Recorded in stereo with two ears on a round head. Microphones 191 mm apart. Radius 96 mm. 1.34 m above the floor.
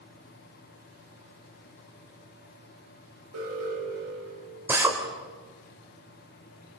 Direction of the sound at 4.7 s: 10° right (ahead or behind).